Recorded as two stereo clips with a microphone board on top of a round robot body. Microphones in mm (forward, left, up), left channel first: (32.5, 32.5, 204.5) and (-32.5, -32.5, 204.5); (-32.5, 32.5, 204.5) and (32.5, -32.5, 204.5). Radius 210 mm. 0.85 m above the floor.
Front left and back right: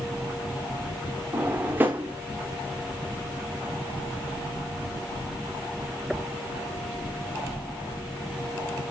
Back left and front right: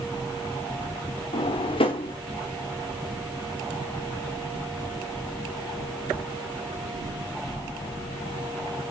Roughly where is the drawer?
Behind left.